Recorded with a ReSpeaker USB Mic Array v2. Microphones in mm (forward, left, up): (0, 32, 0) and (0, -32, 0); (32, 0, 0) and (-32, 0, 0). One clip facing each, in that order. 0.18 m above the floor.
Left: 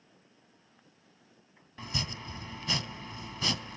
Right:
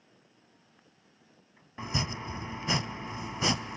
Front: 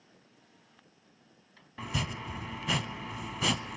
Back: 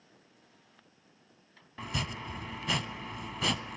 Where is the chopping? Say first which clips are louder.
Right 4 dB, front 1 dB; 90° right, 0.7 m.